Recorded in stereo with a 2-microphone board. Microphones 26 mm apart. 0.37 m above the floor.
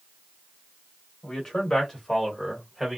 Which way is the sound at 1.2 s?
25° left (ahead or behind).